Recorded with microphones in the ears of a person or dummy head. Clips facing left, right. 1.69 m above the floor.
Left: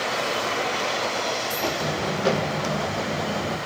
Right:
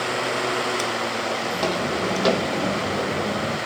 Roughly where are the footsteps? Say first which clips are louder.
Right 2 dB; right.